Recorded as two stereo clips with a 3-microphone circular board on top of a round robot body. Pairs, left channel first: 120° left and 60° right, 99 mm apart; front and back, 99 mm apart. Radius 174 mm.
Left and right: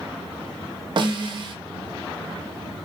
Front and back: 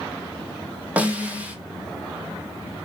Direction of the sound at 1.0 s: 105° right.